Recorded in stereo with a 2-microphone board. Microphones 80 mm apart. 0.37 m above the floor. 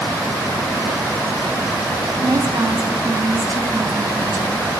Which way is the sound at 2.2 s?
55° right (ahead or behind).